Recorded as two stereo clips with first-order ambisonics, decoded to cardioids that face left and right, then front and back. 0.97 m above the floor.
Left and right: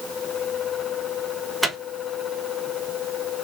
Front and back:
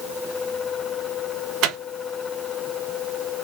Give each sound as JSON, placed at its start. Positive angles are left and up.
{"t": 1.6, "sound": "a microwave", "azimuth_deg": -175, "distance_m": 0.9}